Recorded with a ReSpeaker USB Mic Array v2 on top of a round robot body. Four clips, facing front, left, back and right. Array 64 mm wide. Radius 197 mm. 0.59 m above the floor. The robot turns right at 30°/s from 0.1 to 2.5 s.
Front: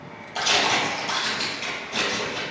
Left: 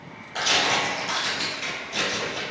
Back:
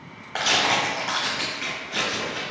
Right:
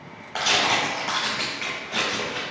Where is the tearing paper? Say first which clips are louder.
Right 1 dB, even; 155° right, 0.7 m; by 2.4 s 90° right, 0.7 m.